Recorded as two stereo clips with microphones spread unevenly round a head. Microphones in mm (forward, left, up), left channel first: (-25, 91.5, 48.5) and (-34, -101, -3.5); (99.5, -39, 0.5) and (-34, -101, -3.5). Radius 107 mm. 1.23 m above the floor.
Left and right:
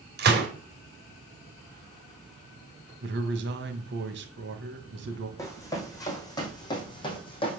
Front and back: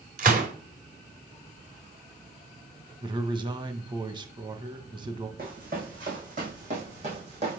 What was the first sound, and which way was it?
A gunshot, 130° right.